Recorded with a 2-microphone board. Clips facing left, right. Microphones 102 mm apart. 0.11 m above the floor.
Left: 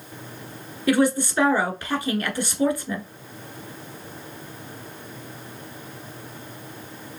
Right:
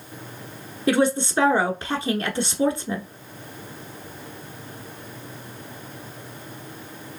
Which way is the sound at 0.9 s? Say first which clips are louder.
Even; 25° right (ahead or behind).